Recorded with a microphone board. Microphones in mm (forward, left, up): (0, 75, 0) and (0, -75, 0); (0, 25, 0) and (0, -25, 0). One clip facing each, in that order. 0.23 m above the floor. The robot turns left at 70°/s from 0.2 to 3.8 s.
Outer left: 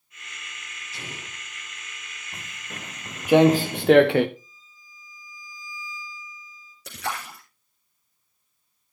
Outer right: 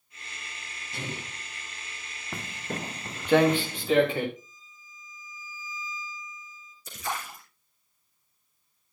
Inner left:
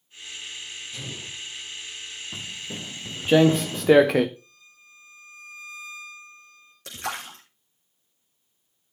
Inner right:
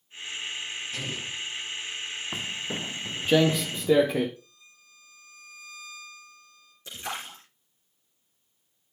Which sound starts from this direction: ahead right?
An explosion, at 0.9 s.